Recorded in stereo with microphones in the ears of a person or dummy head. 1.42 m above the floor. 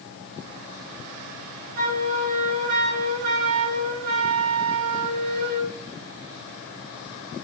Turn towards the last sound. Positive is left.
turn(degrees=-50)  # may be behind; listen again after turning